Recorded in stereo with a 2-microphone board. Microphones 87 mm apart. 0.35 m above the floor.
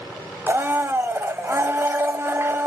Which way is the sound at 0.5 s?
30° right (ahead or behind).